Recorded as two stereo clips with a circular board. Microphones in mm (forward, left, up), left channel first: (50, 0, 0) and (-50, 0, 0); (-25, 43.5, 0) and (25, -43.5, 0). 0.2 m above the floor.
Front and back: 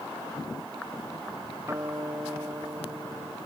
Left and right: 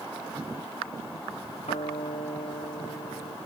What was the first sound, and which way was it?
A guitar, 120° left.